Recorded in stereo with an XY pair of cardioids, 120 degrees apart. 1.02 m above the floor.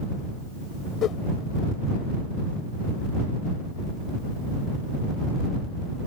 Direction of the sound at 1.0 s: 60° left.